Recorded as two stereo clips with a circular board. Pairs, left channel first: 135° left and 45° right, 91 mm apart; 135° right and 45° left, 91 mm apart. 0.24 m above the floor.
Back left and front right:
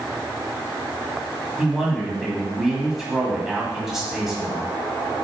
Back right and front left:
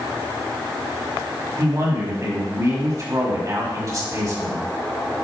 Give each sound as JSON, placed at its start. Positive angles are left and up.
{"t": 1.6, "sound": "a man speaking", "azimuth_deg": 35, "distance_m": 2.0}